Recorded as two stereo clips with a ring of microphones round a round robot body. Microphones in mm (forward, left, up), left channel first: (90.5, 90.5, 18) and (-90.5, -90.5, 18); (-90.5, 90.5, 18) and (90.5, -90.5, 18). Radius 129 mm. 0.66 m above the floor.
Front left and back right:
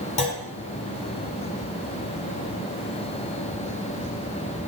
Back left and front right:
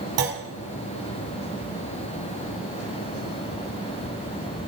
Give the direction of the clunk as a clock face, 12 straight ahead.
1 o'clock.